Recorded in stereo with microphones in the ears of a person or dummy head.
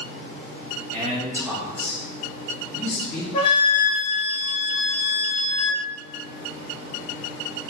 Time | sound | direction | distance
0.9 | a man speaking | 35° right (ahead or behind) | 0.8 m
3.3 | a flute | 25° left (ahead or behind) | 0.9 m